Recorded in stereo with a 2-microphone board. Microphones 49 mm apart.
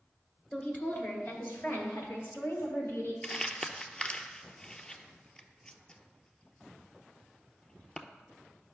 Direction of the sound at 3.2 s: 15° left (ahead or behind).